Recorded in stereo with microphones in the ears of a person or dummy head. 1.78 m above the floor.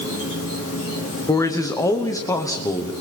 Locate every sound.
0.0 s an insect: 70° left (ahead or behind), 5 m
1.3 s a man speaking: 15° left (ahead or behind), 1.2 m